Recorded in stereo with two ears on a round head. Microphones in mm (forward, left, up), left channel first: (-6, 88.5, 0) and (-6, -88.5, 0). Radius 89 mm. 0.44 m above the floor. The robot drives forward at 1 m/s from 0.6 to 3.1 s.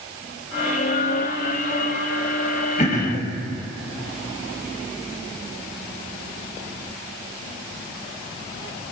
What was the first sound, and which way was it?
Throat clearing, 35° left (ahead or behind).